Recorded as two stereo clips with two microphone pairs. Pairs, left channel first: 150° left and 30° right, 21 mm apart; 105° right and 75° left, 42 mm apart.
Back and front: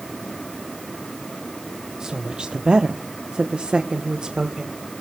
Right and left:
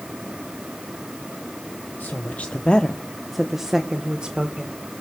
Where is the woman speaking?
80° right, 0.9 m; by 4.8 s 15° left, 1.5 m.